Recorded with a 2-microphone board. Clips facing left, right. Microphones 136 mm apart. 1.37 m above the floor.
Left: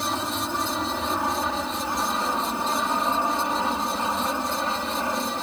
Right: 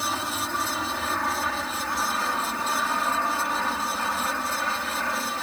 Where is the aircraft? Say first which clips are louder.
Left 2 dB; 15° left (ahead or behind); by 5.4 s 20° left (ahead or behind).